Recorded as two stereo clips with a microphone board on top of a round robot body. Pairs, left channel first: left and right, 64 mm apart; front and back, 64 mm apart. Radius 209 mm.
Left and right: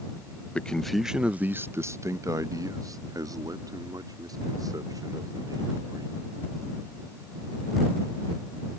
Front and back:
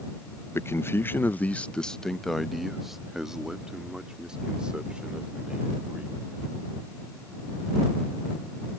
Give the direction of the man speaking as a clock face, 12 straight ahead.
11 o'clock.